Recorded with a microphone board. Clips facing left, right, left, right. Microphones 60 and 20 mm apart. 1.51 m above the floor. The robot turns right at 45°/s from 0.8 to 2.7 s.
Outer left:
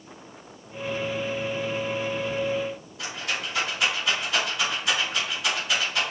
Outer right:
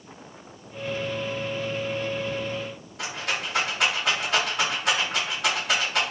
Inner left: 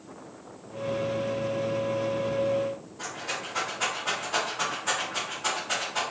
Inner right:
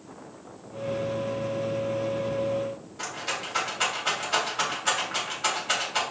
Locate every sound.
3.0 s a rattle: 65° right (ahead or behind), 2.5 m